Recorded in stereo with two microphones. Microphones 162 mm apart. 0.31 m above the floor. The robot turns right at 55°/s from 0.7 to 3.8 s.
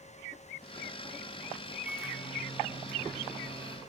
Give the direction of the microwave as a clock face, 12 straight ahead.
6 o'clock.